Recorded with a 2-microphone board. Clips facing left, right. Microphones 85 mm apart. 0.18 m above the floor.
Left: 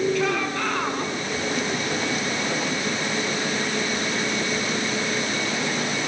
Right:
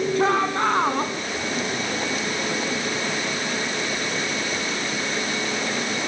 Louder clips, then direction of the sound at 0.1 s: Right 4 dB; 35° right (ahead or behind).